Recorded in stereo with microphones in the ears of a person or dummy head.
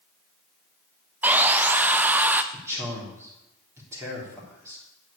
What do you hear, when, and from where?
1.2 s sawing: 15° right (ahead or behind), 0.8 m
2.5 s a man speaking: 15° right (ahead or behind), 3.5 m